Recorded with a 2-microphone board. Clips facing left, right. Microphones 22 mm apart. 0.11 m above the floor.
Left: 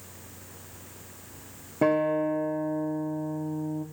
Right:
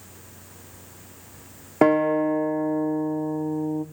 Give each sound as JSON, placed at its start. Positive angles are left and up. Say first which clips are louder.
{"t": 1.8, "sound": "a guitar", "louder": "right 5 dB", "side_deg": -80, "distance_m": 2.5}